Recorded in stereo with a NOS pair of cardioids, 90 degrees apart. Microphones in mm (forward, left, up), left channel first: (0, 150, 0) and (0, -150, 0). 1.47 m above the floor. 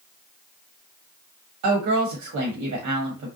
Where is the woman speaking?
65° right, 1.1 m.